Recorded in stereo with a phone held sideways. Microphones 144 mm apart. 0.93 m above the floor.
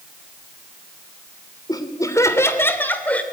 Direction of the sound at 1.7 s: 25° left (ahead or behind).